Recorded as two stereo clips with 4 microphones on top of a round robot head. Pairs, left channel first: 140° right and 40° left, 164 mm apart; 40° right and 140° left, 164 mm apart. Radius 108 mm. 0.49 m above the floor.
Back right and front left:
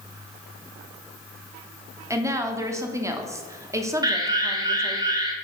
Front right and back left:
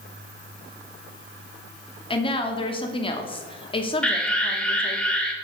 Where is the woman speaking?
15° right, 0.9 m.